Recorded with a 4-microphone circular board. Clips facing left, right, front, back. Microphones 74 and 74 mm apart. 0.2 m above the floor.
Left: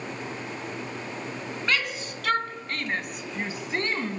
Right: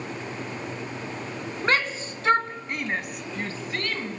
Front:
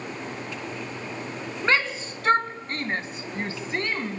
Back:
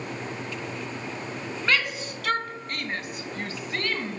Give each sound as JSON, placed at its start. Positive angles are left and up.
{"t": 1.6, "sound": "a shout", "azimuth_deg": -55, "distance_m": 2.0}